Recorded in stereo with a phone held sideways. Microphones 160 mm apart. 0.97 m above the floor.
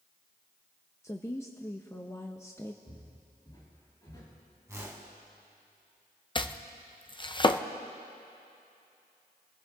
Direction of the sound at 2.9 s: 25° left (ahead or behind).